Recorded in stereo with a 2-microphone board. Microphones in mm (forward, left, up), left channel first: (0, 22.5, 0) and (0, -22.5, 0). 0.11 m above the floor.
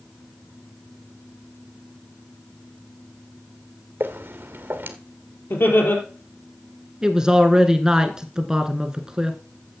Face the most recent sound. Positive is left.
turn(degrees=-15)  # may be behind; listen again after turning